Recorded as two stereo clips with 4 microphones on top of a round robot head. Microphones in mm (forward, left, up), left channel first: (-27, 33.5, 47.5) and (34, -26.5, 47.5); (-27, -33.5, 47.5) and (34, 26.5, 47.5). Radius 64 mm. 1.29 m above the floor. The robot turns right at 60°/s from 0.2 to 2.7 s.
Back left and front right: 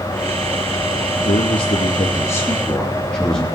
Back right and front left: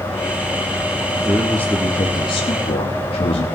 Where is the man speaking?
120° left, 2.5 m; by 3.5 s 145° right, 2.5 m.